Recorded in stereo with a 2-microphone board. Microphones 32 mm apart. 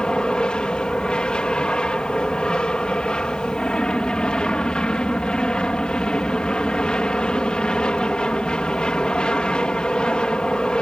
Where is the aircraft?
30° left (ahead or behind).